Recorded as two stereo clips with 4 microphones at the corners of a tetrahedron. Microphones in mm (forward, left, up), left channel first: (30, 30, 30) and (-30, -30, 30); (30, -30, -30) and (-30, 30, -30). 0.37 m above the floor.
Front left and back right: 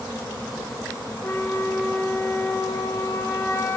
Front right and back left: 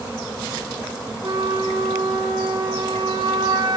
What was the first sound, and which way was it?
A flute, 100° left.